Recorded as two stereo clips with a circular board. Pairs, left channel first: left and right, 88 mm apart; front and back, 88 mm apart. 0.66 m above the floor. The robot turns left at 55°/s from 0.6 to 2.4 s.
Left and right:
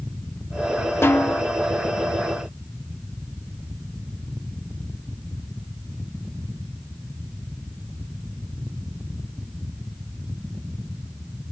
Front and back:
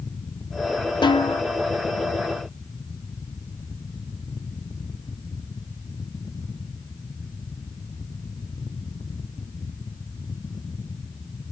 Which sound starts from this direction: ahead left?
A snare drum, at 1.0 s.